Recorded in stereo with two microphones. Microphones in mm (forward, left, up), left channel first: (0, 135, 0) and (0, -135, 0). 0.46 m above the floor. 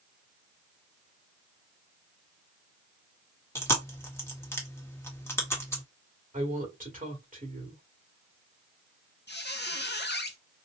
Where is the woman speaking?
30° right (ahead or behind), 1.9 m.